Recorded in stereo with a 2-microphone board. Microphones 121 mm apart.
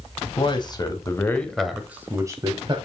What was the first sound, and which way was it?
A man speaking, 45° left (ahead or behind).